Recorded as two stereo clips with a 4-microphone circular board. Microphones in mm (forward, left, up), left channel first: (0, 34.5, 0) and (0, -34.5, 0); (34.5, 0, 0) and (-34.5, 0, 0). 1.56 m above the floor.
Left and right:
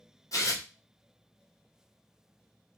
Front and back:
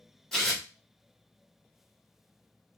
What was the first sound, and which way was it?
Tearing paper, 85° left.